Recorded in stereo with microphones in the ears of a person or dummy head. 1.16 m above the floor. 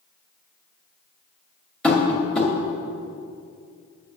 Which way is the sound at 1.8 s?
10° left (ahead or behind).